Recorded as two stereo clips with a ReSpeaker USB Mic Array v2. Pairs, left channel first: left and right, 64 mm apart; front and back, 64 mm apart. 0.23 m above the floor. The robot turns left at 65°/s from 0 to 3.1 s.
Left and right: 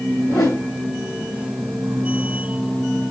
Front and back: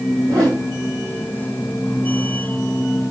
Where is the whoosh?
160° left, 3.5 m; by 0.7 s 130° left, 3.5 m.